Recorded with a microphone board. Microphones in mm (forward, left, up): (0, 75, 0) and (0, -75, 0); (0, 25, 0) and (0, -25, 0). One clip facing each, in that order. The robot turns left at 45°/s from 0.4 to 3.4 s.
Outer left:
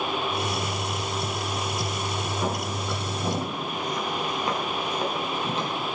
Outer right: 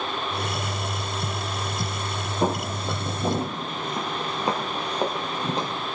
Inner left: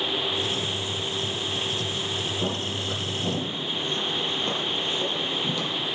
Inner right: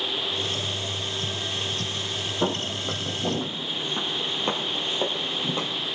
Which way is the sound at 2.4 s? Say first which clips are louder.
Outer right 8 dB, inner right 2 dB; 45° right (ahead or behind).